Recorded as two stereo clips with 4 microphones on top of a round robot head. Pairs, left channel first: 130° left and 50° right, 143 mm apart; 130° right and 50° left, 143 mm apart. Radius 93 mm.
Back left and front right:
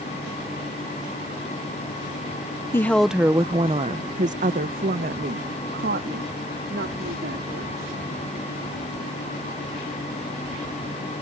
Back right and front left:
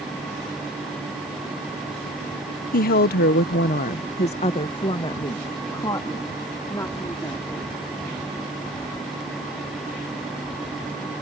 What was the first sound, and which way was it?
A woman speaking, 155° right.